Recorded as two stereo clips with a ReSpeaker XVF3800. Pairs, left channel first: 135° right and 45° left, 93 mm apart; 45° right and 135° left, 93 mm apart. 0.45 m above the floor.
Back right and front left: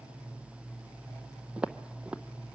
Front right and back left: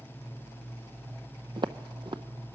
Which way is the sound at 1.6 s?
120° left.